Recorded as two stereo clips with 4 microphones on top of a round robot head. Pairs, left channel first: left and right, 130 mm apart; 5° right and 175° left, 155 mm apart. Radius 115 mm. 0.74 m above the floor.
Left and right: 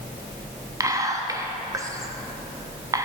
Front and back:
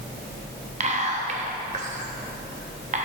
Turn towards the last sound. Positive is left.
turn(degrees=-150)